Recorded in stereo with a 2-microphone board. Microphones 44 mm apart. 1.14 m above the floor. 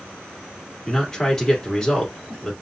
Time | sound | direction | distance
0.9 | a man speaking | 10° left (ahead or behind) | 2.5 m